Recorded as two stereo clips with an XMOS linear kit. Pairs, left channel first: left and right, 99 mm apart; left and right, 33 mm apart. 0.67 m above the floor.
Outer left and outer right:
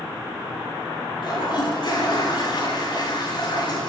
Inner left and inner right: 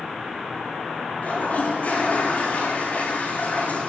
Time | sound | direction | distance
1.2 | a toilet flushing | 55° left (ahead or behind) | 6.5 m